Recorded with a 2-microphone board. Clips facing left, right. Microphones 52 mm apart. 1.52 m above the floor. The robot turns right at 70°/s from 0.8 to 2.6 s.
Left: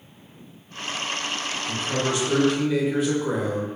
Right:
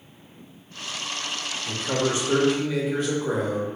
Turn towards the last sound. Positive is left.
turn(degrees=0)